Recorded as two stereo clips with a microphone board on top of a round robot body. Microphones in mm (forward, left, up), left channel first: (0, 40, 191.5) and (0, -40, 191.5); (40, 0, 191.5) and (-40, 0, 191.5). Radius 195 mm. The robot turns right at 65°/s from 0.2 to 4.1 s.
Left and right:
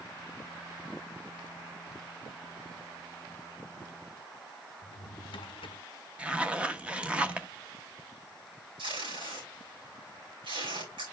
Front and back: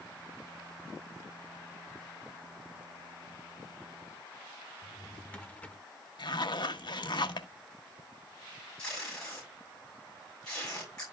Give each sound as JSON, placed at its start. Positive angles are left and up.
{"t": 4.8, "sound": "a drawer", "azimuth_deg": 75, "distance_m": 0.5}
{"t": 6.2, "sound": "a zipper", "azimuth_deg": -15, "distance_m": 1.0}
{"t": 8.8, "sound": "tape being pulled", "azimuth_deg": -80, "distance_m": 6.5}